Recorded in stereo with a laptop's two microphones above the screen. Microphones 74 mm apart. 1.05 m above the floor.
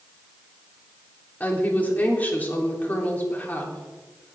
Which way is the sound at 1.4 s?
25° left (ahead or behind).